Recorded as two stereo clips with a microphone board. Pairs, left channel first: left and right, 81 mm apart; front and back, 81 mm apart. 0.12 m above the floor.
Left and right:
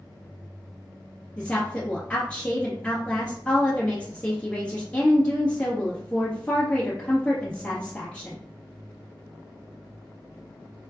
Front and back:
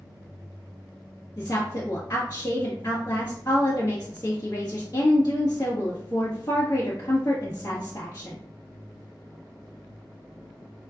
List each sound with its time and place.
1.4 s a woman speaking: 15° left, 1.6 m